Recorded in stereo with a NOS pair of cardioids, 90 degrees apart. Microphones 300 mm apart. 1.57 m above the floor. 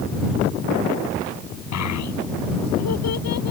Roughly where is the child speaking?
Left.